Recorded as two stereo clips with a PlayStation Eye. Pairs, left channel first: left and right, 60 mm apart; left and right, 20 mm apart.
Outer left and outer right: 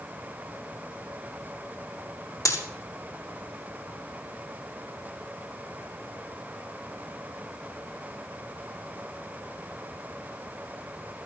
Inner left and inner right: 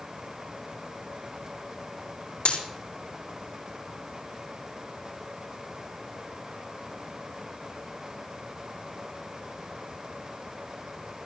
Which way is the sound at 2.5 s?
80° left.